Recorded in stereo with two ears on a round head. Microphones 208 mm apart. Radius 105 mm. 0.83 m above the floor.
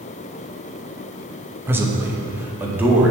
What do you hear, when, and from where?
1.7 s a man speaking: 10° right (ahead or behind), 0.9 m